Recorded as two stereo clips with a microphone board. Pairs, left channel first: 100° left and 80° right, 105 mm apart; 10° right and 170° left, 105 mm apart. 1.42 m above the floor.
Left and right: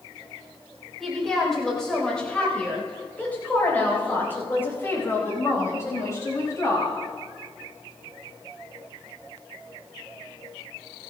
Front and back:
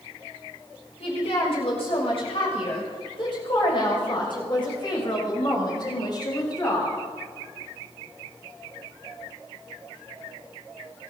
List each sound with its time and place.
1.0 s a woman speaking: 10° left, 7 m; by 7.0 s 40° left, 9.5 m